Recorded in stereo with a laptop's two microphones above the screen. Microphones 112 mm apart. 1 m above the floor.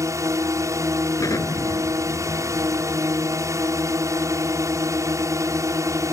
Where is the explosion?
30° left (ahead or behind).